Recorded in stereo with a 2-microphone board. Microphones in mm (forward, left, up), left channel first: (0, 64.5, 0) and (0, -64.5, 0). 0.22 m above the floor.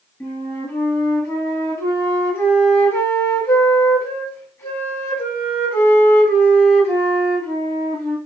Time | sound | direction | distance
0.2 | a flute | 20° left (ahead or behind) | 1.0 m